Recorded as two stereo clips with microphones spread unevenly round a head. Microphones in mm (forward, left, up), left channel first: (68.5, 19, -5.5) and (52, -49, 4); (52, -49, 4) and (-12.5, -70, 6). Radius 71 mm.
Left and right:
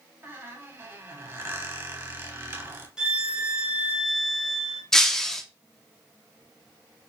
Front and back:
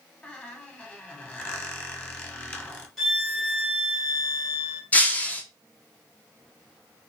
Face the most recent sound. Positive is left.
turn(degrees=-15)